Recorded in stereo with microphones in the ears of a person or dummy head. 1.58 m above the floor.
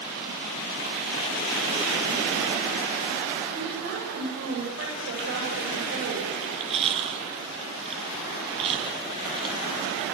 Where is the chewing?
35° right (ahead or behind), 6 m.